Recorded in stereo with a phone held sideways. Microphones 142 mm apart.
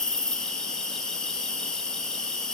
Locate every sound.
0.0 s an insect: 5° left (ahead or behind), 1.0 m